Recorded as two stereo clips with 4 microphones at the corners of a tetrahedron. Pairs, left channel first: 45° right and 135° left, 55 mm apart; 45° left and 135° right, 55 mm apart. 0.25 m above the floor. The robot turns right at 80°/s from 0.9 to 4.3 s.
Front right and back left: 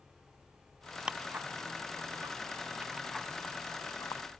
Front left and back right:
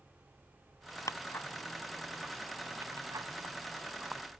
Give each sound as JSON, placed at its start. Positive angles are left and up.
{"t": 1.1, "sound": "ticking", "azimuth_deg": 60}